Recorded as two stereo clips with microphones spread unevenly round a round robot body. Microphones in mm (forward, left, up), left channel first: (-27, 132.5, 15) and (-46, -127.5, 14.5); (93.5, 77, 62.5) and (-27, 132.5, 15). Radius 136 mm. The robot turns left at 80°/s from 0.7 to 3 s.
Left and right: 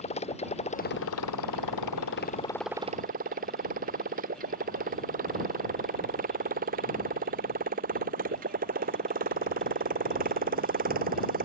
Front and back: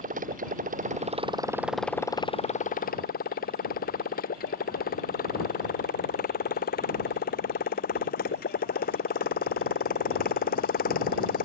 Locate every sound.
0.0 s a motorcycle: 150° left; by 11.5 s 35° right